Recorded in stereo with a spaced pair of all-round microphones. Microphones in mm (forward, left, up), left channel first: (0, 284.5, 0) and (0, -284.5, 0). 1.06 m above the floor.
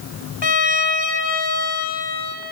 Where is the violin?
45° left (ahead or behind), 0.8 m.